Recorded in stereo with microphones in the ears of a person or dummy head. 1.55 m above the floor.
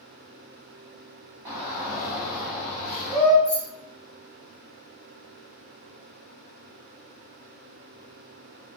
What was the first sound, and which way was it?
A shout, 20° right (ahead or behind).